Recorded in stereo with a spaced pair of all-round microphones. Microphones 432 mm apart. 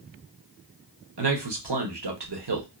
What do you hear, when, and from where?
1.2 s a man speaking: 65° right (ahead or behind), 0.8 m